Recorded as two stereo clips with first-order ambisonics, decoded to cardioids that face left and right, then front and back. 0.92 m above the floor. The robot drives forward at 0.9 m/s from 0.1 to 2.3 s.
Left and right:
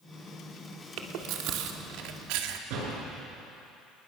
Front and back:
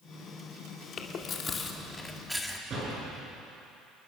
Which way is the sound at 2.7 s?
115° right.